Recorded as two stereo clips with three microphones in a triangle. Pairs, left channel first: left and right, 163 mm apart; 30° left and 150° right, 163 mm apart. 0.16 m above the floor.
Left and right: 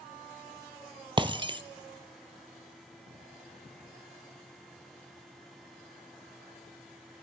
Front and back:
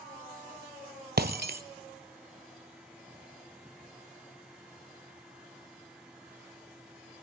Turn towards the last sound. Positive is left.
turn(degrees=-150)